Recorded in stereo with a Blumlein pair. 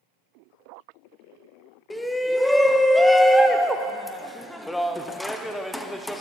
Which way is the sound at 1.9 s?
5° left.